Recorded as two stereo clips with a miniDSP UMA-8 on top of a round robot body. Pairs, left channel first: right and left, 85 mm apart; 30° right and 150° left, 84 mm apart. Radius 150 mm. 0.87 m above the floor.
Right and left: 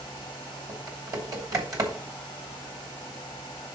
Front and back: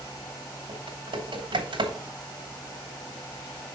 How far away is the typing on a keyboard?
About 3.5 m.